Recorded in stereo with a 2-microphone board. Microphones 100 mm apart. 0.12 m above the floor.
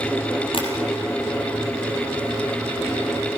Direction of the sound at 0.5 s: 60° left (ahead or behind).